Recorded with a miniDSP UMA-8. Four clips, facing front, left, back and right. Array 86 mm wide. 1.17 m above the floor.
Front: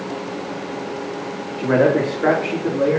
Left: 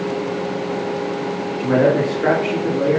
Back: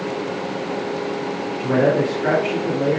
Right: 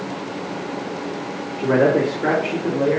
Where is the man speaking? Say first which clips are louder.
Even, front 2 dB; 15° left, 2.5 m; by 3.0 s 40° left, 3.5 m.